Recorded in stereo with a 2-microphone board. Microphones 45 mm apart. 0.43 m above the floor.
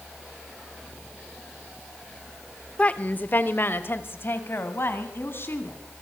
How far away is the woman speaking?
About 1.1 m.